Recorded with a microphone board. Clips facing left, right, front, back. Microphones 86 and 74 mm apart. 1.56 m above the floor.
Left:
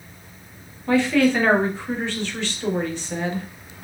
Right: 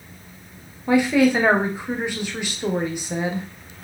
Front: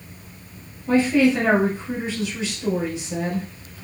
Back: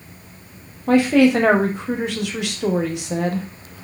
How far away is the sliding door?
I don't hear a sliding door.